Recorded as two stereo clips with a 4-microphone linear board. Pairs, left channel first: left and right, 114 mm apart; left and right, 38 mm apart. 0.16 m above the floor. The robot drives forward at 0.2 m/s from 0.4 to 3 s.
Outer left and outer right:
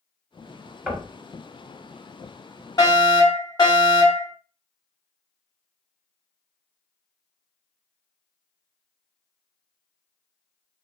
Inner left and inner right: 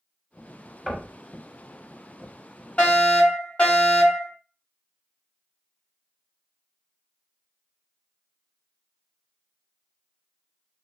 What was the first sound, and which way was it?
Knocking, 5° right (ahead or behind).